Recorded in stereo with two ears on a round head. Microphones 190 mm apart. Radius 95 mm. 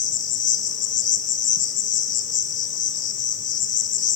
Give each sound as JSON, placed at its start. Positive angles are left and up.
{"t": 0.0, "sound": "an insect", "side_deg": 60, "distance_m": 1.3}